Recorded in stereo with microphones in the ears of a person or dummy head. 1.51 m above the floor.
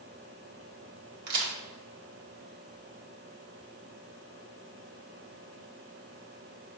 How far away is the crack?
About 2 m.